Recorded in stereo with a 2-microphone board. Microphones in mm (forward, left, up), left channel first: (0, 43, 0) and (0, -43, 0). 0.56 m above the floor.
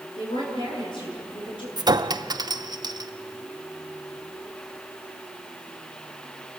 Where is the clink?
50° right (ahead or behind), 0.6 m.